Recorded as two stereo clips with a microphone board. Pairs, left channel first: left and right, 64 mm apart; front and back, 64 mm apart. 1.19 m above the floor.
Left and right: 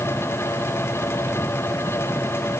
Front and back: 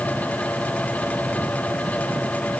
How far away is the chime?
No chime in this recording.